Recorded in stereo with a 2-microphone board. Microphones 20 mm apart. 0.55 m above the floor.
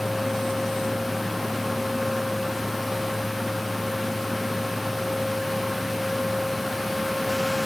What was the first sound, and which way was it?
Only background noise.